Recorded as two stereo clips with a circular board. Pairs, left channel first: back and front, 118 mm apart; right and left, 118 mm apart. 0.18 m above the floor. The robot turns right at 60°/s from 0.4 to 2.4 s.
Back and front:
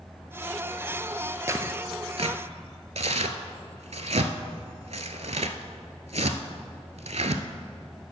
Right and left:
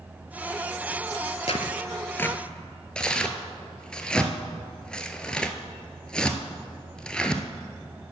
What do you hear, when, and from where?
1.5 s tearing paper: 65° right, 0.6 m; by 7.4 s 10° right, 0.6 m